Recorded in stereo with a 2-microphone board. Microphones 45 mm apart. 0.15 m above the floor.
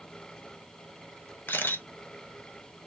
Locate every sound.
1.5 s a camera shutter: 50° left (ahead or behind), 0.7 m